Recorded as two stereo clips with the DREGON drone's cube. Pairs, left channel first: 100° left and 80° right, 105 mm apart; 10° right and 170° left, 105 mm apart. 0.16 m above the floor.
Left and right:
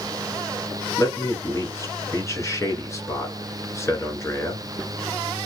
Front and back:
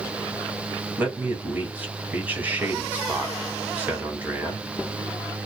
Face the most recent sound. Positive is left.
turn(degrees=110)